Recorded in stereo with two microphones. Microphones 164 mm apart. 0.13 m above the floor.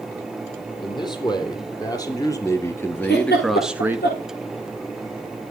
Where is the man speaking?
25° left (ahead or behind), 4 m; by 4.0 s 15° right (ahead or behind), 1.2 m.